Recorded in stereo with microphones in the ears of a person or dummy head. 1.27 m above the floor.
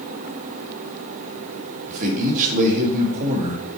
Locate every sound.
1.9 s a man speaking: 50° right (ahead or behind), 1.8 m